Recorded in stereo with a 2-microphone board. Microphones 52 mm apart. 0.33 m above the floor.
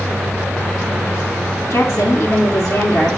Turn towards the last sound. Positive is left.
turn(degrees=65)  # may be behind; listen again after turning